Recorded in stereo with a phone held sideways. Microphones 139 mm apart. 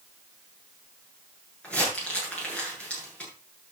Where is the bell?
No bell in this recording.